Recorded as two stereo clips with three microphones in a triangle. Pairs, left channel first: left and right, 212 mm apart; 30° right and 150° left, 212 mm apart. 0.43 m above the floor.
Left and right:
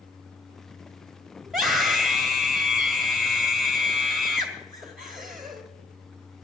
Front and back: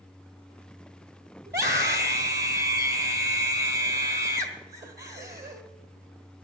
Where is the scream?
Straight behind, 1.9 m.